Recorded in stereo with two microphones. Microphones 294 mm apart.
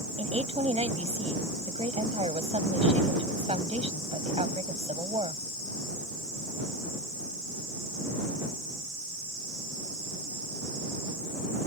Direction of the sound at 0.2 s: 20° right (ahead or behind).